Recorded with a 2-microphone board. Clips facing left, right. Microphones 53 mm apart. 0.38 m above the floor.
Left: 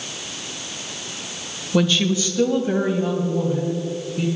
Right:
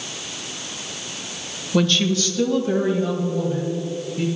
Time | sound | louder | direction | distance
1.7 | a woman speaking | even | 5° left (ahead or behind) | 0.9 m